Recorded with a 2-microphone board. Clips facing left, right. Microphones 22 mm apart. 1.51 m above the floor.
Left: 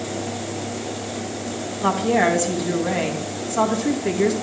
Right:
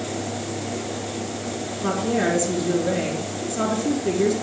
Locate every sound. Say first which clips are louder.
1.8 s a woman speaking: left 4 dB; 80° left, 2.5 m